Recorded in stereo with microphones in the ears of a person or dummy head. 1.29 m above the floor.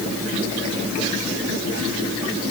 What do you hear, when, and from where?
Only background noise.